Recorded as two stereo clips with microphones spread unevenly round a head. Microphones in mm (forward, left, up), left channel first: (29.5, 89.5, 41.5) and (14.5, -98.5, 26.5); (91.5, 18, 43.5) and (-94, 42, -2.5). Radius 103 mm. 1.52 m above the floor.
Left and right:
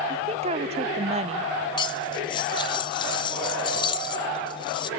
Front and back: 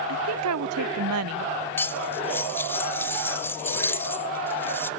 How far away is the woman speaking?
About 0.7 m.